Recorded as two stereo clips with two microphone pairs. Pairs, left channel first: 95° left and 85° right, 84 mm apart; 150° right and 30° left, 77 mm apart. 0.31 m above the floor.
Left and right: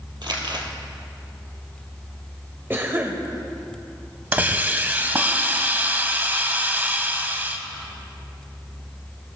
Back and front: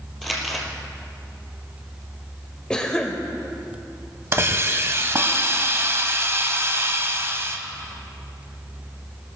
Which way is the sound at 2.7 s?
90° right.